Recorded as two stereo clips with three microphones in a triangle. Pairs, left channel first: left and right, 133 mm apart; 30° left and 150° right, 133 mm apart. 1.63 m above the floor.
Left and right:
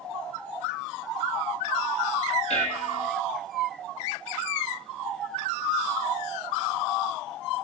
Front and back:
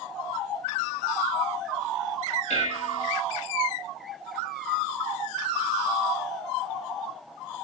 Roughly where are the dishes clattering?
Ahead left.